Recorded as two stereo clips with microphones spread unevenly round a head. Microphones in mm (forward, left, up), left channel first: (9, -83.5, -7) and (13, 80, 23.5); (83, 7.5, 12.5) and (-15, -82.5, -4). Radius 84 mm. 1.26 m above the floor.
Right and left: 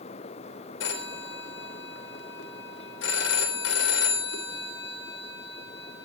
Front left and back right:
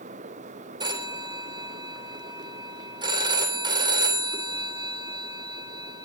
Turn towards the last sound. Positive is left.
turn(degrees=-80)